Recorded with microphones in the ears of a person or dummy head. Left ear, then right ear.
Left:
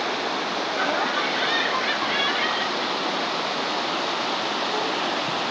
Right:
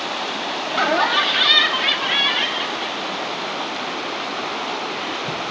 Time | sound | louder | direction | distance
0.7 | laughter | right 8 dB | 70° right (ahead or behind) | 0.6 m